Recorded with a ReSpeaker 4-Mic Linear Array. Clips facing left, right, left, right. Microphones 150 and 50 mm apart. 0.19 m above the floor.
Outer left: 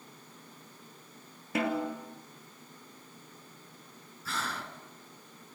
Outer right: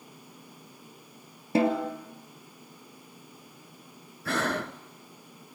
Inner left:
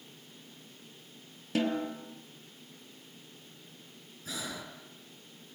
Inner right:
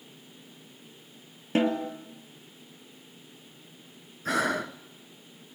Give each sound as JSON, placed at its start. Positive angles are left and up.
{"t": 1.6, "sound": "a snare drum", "side_deg": -30, "distance_m": 2.0}
{"t": 4.2, "sound": "breathing", "side_deg": -65, "distance_m": 0.8}